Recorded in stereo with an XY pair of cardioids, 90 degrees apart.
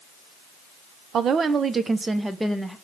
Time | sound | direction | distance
1.1 | a woman speaking | 65° right | 0.7 m